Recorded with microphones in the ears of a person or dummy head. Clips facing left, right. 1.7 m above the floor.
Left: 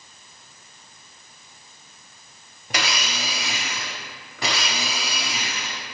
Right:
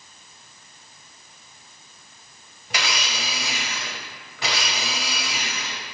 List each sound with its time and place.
2.7 s a blender: 40° left (ahead or behind), 0.6 m